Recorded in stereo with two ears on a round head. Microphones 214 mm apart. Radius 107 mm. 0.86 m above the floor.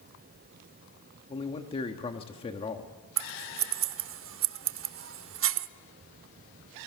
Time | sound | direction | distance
1.3 | a man speaking | 25° left (ahead or behind) | 1.4 m
3.2 | scissors | 55° right (ahead or behind) | 0.9 m